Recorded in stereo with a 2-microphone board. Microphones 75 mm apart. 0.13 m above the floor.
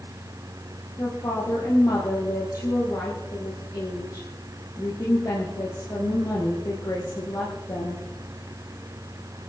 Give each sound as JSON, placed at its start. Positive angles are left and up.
{"t": 1.0, "sound": "a woman speaking", "side_deg": 55, "distance_m": 4.0}